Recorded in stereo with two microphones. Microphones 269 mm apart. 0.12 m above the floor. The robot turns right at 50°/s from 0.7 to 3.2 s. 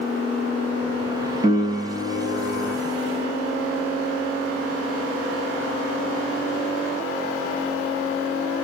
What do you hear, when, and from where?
1.4 s a piano: 25° right (ahead or behind), 0.5 m; by 2.8 s 15° right (ahead or behind), 0.5 m